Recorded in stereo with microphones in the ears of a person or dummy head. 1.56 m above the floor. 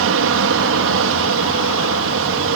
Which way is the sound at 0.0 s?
65° right (ahead or behind).